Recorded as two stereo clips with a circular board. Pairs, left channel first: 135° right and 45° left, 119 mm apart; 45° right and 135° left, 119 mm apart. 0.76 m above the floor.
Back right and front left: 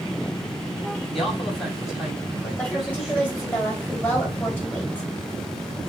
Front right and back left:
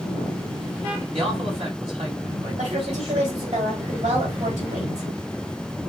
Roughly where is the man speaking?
Behind left.